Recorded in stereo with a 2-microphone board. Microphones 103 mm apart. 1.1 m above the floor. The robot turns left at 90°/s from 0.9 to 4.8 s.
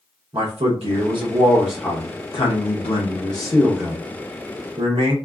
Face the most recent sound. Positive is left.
turn(degrees=-95)